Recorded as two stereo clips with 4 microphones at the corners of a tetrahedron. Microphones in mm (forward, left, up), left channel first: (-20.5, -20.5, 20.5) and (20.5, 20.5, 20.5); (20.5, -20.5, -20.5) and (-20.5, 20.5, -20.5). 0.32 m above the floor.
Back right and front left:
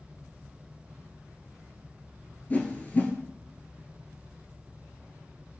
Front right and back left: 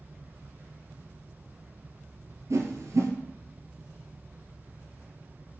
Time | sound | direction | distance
2.5 | a whoosh | 160° left | 0.8 m